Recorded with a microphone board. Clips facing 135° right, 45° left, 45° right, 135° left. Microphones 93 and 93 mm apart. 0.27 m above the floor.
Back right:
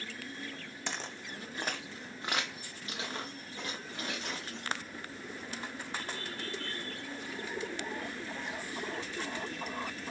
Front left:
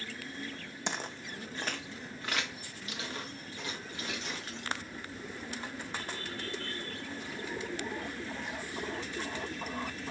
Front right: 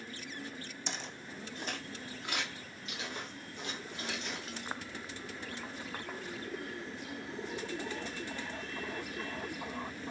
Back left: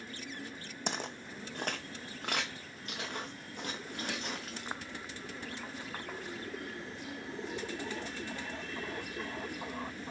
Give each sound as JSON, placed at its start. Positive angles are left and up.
{"t": 0.9, "sound": "footsteps", "azimuth_deg": 110, "distance_m": 0.6}